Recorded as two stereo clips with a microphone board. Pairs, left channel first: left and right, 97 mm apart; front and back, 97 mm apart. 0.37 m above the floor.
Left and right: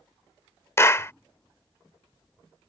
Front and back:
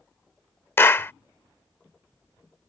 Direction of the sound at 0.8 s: 50° left.